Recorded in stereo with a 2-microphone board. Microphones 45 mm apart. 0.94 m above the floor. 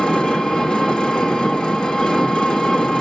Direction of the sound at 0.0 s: 20° left (ahead or behind).